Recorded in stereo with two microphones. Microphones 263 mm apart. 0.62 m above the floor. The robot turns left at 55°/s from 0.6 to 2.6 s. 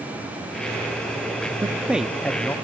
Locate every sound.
1.6 s a man speaking: 10° right (ahead or behind), 0.5 m; by 2.5 s 10° left (ahead or behind), 0.5 m